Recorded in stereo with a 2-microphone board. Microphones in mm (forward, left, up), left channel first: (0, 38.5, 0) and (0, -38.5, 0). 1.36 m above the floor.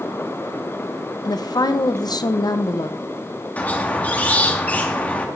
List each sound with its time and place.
1.2 s a woman speaking: 60° left (ahead or behind), 0.5 m
3.6 s a squeak: 20° left (ahead or behind), 0.8 m